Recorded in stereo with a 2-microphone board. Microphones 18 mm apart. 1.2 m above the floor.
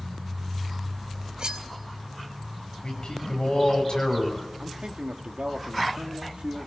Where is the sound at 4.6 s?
75° right (ahead or behind), 3 m.